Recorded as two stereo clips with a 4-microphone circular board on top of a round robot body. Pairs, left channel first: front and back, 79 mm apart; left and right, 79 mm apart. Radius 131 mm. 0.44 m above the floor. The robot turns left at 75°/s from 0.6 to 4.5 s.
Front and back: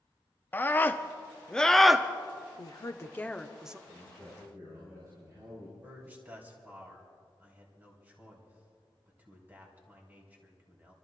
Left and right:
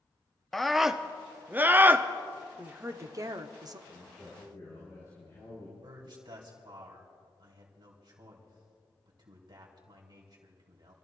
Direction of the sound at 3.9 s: Straight behind.